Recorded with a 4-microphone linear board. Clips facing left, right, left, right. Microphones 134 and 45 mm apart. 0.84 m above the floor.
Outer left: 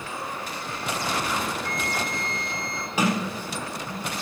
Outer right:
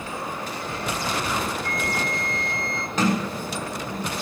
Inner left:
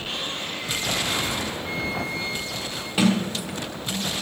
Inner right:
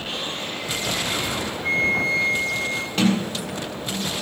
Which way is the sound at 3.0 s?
10° left (ahead or behind).